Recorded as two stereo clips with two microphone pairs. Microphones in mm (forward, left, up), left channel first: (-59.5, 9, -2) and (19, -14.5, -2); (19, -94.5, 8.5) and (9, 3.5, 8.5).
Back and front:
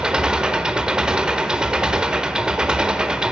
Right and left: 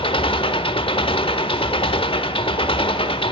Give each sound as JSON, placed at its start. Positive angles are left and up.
{"t": 0.0, "sound": "an engine running", "azimuth_deg": -95, "distance_m": 1.1}